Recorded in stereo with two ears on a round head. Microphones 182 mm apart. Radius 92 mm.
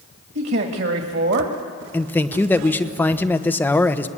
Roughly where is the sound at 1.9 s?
Centre.